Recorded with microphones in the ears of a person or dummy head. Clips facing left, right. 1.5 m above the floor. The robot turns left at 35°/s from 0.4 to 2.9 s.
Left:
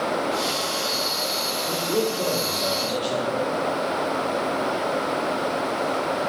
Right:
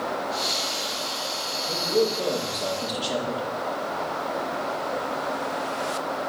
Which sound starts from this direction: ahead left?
A man speaking, at 1.7 s.